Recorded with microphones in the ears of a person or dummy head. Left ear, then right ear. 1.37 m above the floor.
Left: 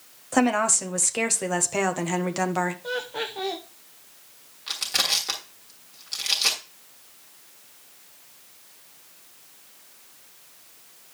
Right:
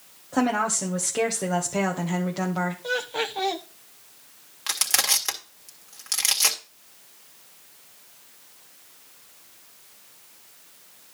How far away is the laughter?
About 1.0 m.